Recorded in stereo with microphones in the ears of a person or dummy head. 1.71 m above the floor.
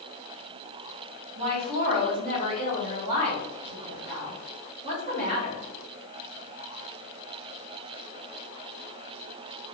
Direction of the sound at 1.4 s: 35° right (ahead or behind).